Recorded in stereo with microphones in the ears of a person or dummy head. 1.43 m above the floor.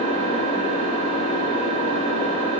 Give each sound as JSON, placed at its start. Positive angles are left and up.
{"t": 0.0, "sound": "an engine running", "side_deg": 25, "distance_m": 1.2}